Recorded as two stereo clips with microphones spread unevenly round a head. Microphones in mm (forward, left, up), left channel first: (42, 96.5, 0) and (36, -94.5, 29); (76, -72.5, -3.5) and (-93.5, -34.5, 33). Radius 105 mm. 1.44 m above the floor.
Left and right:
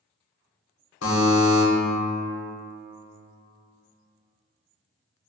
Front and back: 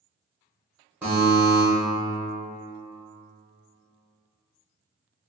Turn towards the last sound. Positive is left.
turn(degrees=95)